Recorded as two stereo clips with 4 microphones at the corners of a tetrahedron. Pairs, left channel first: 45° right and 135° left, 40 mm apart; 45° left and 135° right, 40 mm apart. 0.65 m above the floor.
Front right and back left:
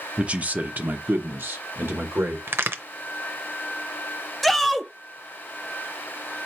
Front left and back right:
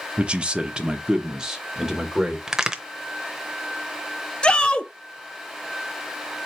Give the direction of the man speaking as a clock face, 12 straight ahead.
6 o'clock.